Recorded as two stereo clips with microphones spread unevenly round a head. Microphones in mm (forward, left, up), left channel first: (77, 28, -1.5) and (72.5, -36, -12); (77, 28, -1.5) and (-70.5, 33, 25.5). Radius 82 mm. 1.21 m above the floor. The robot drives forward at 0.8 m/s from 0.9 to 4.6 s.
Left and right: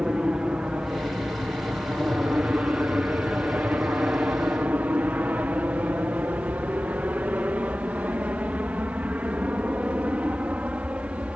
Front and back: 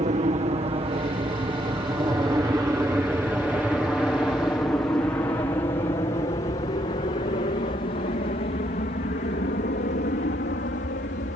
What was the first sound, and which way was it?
An aircraft, 165° right.